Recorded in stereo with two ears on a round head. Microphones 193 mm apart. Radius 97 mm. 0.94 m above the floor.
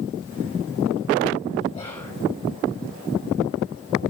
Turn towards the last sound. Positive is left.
turn(degrees=20)  # may be behind; listen again after turning